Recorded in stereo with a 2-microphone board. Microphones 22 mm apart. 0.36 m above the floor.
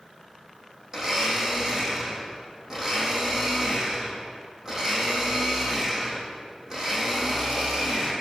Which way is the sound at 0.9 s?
20° right (ahead or behind).